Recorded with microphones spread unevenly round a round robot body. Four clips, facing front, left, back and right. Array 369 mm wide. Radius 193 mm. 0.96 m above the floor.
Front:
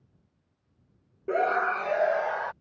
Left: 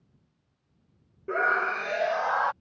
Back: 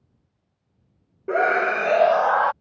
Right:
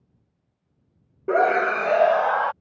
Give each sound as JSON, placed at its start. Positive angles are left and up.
{"t": 1.3, "sound": "a scream", "azimuth_deg": -95}